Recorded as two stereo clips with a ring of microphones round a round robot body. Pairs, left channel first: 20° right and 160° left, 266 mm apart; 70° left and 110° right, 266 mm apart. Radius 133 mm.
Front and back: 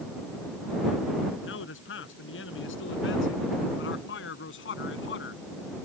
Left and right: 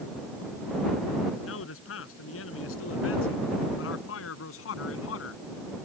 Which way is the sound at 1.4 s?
25° left.